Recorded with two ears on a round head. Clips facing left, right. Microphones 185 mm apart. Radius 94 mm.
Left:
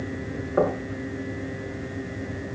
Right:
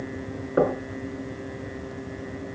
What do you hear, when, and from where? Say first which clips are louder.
0.6 s knocking: right 1 dB; 25° right (ahead or behind), 3.5 m